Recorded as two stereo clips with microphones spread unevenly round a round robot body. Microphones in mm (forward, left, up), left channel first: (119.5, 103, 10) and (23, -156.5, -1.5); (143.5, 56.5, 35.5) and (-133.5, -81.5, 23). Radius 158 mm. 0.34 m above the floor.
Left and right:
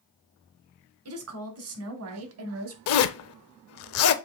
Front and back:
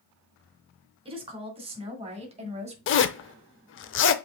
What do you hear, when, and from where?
1.1 s a woman speaking: 80° right, 3 m; by 2.8 s 85° right, 2.0 m
2.9 s a zipper: 65° left, 0.6 m